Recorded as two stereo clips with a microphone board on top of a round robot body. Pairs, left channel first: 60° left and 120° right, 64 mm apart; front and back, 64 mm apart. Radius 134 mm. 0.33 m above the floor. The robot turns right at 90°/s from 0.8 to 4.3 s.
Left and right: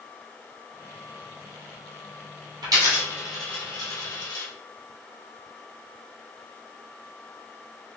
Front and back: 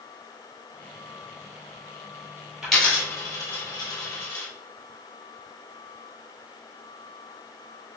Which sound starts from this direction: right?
A dropped coin, at 2.6 s.